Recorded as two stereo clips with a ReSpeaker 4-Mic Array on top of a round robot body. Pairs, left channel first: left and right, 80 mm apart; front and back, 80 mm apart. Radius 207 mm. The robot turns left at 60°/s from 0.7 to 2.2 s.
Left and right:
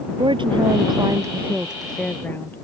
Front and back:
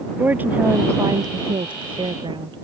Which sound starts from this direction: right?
A woman speaking, at 0.2 s.